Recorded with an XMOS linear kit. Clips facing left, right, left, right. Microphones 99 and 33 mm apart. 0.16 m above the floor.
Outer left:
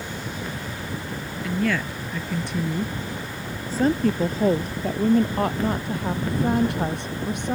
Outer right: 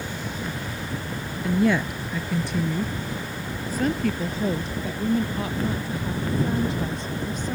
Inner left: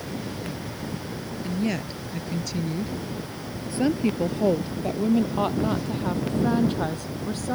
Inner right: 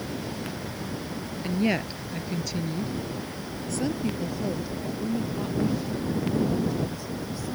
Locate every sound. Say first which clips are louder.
1.4 s a woman speaking: outer right 3 dB, inner right 2 dB; 25° right (ahead or behind); by 7.5 s 70° left (ahead or behind)